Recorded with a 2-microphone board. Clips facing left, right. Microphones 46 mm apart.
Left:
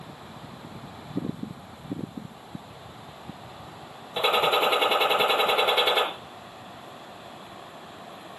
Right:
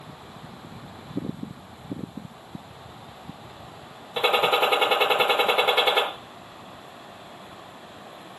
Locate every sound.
4.2 s a gunshot: 10° right (ahead or behind), 5 m